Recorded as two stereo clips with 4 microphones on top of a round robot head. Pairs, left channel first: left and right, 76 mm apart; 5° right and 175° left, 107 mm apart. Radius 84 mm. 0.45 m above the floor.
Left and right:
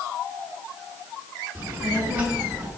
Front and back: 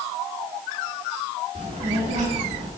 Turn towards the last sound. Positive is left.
turn(degrees=-165)